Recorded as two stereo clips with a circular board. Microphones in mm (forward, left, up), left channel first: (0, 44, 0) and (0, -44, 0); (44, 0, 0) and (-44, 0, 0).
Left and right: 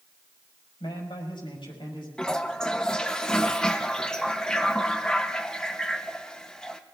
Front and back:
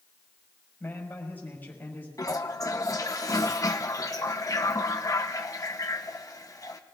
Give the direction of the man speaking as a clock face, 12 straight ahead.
10 o'clock.